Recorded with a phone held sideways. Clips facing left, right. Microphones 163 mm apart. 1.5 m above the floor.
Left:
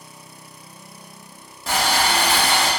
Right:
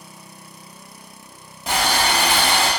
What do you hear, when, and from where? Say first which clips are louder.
1.7 s boiling: even; 20° right (ahead or behind), 0.8 m